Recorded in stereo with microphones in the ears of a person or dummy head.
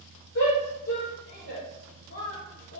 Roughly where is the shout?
Left.